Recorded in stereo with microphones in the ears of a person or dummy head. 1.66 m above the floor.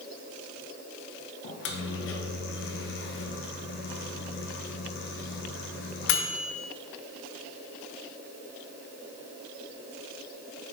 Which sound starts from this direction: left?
A microwave, at 1.4 s.